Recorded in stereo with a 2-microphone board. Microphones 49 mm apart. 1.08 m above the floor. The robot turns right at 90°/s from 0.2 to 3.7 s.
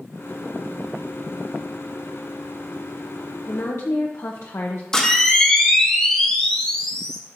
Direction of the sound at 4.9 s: 10° left (ahead or behind).